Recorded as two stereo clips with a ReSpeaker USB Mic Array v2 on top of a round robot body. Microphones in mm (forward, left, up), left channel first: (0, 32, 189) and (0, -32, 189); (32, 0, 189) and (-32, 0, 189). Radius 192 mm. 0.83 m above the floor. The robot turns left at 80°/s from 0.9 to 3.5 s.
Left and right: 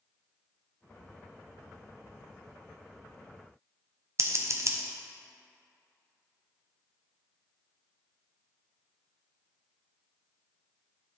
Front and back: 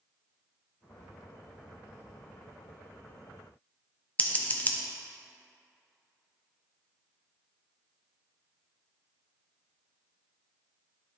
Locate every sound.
4.2 s scissors: 60° right, 0.8 m